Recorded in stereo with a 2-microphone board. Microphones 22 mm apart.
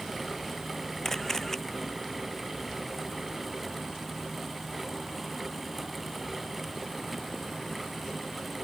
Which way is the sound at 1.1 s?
20° left (ahead or behind).